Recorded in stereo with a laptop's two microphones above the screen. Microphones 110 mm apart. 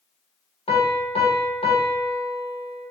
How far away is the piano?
About 0.9 m.